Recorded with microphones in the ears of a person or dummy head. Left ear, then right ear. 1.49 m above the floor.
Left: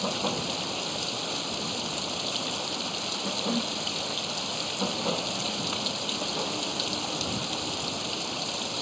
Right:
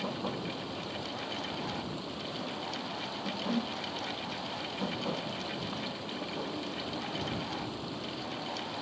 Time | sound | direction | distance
0.0 | running water | 75° left (ahead or behind) | ?
3.5 | a whoosh | 10° left (ahead or behind) | ?